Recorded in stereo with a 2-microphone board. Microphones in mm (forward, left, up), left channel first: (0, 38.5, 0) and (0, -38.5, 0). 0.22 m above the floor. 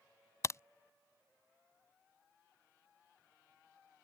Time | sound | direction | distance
0.4 | a crack | 40° left (ahead or behind) | ?